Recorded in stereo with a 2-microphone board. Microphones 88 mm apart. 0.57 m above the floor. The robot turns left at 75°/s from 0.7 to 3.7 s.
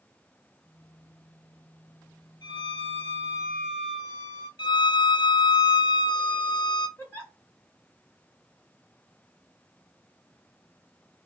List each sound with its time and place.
2.4 s a violin: 120° left, 1.1 m; by 4.5 s 25° left, 1.1 m
4.6 s a violin: 70° left (ahead or behind), 0.6 m
7.0 s a giggle: 25° left (ahead or behind), 1.2 m